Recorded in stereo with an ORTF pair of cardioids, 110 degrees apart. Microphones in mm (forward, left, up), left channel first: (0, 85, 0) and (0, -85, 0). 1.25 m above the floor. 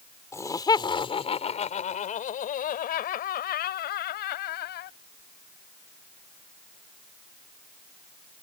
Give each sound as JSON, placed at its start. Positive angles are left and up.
{"t": 0.3, "sound": "laughter", "azimuth_deg": 15}